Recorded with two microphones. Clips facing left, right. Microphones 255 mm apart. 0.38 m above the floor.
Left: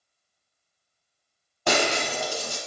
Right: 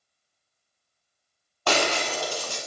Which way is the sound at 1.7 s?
25° left (ahead or behind).